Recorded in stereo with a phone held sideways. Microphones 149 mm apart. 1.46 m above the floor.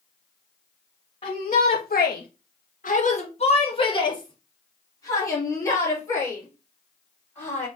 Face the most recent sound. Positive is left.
turn(degrees=15)  # may be behind; listen again after turning